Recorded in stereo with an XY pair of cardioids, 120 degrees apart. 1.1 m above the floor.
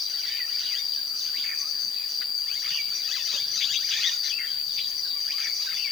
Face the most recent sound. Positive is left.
turn(degrees=60)